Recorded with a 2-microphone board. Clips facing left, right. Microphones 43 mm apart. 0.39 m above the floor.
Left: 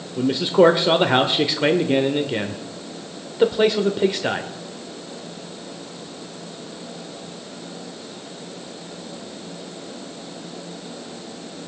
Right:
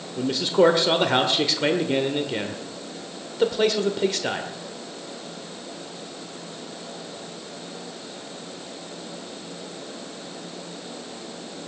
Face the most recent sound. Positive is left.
turn(degrees=15)  # may be behind; listen again after turning